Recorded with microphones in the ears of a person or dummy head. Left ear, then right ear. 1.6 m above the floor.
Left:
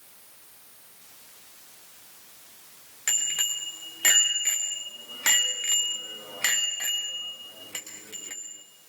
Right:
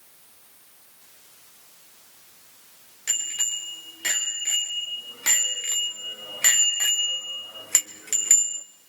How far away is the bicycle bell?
About 4 m.